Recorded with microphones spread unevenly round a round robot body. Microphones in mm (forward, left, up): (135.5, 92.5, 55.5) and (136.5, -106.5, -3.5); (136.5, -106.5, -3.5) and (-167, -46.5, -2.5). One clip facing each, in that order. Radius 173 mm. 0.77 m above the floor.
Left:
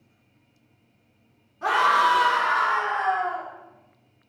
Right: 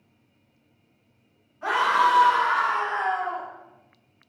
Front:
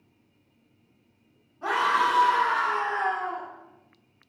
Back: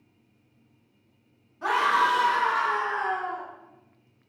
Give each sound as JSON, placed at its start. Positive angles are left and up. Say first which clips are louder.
{"t": 1.6, "sound": "a scream", "louder": "left 1 dB, even", "azimuth_deg": 135, "distance_m": 0.9}